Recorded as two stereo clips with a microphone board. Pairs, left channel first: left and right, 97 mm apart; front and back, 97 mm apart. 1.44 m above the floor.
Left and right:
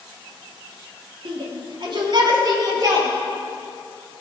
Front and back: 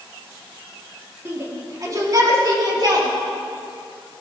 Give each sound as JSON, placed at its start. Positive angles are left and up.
{"t": 1.2, "sound": "a shout", "azimuth_deg": -115, "distance_m": 3.0}